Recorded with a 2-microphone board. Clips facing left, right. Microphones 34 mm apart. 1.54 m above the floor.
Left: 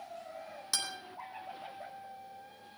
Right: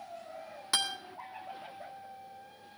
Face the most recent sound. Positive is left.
turn(degrees=-30)  # may be behind; listen again after turning